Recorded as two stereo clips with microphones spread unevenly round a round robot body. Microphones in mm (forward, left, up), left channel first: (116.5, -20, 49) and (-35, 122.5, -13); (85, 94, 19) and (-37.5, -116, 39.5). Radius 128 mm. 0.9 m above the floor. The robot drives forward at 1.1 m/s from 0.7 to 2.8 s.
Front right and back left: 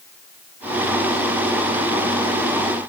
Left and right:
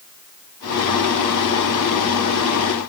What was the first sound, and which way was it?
Only background noise.